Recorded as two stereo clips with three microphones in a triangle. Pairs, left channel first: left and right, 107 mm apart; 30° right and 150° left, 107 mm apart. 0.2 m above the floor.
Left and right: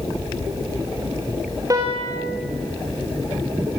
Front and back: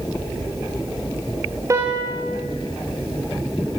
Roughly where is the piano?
Behind right.